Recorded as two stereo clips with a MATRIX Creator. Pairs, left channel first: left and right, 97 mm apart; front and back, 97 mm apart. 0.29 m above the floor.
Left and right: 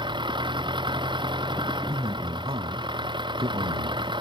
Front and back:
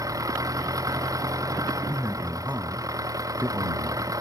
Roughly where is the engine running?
Behind right.